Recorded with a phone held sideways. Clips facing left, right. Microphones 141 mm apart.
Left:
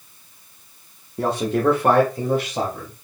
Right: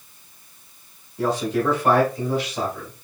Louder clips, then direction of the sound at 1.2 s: Left 1 dB; 60° left (ahead or behind).